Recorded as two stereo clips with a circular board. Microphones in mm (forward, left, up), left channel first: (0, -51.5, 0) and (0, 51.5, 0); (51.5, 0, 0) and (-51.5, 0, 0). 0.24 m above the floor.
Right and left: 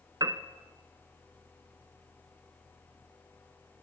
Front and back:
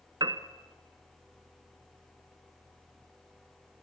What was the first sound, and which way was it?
A piano, 135° left.